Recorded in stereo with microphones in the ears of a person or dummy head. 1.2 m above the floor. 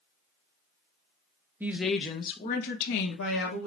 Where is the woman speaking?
10° right (ahead or behind), 0.8 m; by 3.7 s 85° left, 1.2 m.